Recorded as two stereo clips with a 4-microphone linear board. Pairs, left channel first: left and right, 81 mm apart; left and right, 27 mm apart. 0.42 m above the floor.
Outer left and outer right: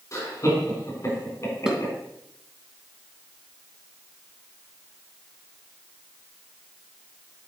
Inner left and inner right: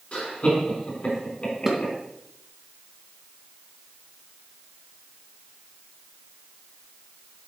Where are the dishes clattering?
5° right (ahead or behind), 2 m.